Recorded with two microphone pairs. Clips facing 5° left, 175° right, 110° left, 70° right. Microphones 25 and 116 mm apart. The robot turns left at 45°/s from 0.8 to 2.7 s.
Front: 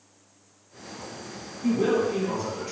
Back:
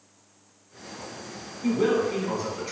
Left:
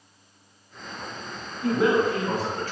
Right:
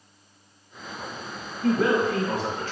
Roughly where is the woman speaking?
Behind.